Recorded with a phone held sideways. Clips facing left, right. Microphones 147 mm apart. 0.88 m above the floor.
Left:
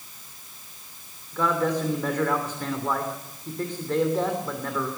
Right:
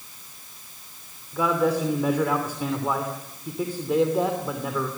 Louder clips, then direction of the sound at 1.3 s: Right 2 dB; 10° right (ahead or behind).